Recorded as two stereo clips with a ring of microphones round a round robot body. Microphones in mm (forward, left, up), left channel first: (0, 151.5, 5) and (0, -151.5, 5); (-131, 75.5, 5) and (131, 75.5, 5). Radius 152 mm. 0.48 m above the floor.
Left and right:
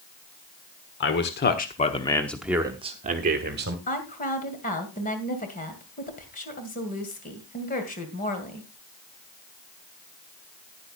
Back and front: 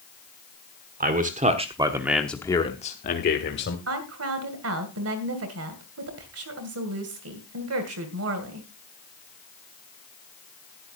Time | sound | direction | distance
1.0 | a man speaking | 50° left | 1.4 m
3.9 | a woman speaking | 25° left | 2 m